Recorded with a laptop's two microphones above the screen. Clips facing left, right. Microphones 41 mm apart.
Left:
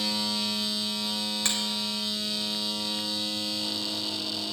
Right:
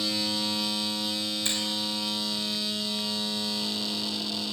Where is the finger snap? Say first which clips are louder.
Left 2 dB; 70° left (ahead or behind), 3.5 m.